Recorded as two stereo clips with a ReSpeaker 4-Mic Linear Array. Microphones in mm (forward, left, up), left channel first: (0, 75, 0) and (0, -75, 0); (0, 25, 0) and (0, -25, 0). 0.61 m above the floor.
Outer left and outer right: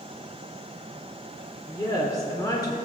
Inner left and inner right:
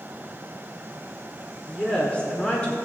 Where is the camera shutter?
I don't hear a camera shutter.